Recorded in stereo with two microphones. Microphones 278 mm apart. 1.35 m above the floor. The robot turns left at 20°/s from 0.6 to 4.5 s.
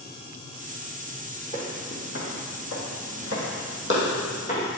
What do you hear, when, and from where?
1.5 s footsteps: 30° left (ahead or behind), 2.5 m; by 4.7 s 25° left (ahead or behind), 3 m